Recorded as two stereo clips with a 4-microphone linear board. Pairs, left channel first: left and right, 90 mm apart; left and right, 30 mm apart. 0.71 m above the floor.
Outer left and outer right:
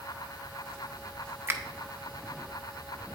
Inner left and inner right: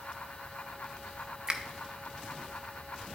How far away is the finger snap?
About 0.6 m.